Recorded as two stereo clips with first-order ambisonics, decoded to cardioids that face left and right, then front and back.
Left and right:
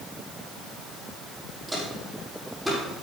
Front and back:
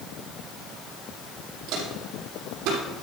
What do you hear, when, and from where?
1.7 s footsteps: 175° right, 4.5 m; by 2.8 s 175° left, 5.5 m